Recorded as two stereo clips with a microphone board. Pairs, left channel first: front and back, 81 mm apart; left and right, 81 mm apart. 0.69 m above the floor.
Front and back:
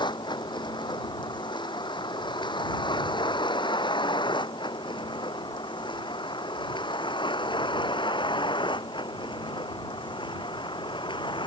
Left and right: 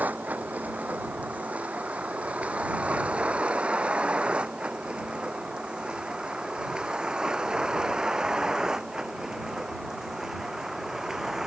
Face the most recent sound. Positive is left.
turn(degrees=-5)